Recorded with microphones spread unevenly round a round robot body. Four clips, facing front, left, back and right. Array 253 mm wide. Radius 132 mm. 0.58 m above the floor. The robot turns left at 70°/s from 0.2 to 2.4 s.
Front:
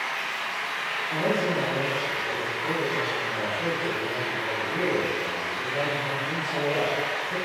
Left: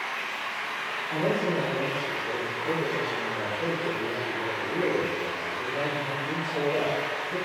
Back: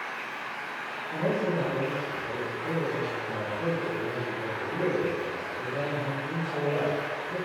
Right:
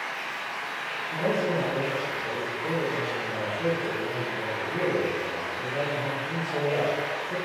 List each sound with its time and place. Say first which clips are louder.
0.0 s running water: left 1 dB, front 5 dB; 40° left, 1.5 m; by 7.5 s 115° right, 1.5 m
1.1 s a man speaking: even, front 2 dB; 20° left, 1.3 m; by 7.4 s 70° right, 1.3 m